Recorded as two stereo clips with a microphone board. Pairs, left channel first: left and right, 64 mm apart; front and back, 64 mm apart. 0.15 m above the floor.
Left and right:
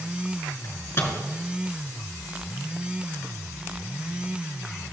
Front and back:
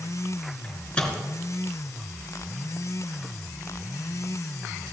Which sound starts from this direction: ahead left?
A microwave, at 0.6 s.